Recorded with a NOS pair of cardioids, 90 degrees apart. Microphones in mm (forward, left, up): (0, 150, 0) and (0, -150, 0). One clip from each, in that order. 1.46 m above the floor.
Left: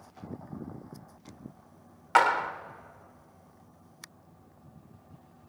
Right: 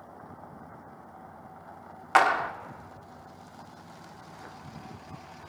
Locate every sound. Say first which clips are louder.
2.1 s a clap: right 1 dB; 20° right, 1.0 m